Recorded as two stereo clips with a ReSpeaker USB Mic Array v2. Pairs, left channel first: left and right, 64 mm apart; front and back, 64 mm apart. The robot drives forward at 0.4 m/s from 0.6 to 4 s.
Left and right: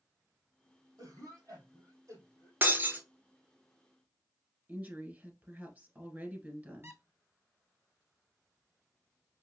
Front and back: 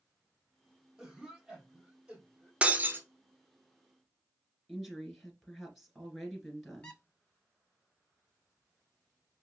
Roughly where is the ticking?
No ticking in this recording.